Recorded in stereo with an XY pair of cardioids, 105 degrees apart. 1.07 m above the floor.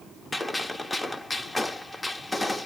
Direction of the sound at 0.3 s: 20° left.